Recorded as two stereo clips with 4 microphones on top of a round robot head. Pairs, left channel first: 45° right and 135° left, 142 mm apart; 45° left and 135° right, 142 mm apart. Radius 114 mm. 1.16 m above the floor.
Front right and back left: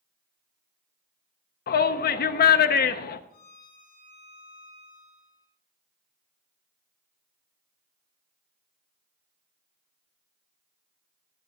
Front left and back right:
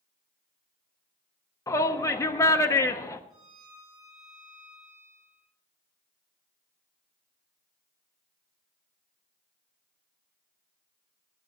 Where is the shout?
25° right, 0.6 m.